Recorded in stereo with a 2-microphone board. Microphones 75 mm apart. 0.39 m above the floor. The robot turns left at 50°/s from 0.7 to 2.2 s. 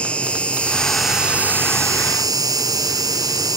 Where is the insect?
15° left; by 3.6 s 60° right.